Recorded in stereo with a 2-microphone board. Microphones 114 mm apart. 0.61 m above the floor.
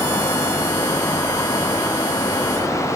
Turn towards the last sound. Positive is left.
No sound to turn to.